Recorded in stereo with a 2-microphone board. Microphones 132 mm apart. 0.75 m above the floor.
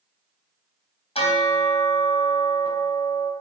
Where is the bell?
50° left (ahead or behind), 3 m.